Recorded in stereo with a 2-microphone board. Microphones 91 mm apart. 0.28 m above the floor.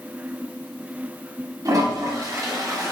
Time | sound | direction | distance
1.6 | a toilet flushing | 45° right (ahead or behind) | 2 m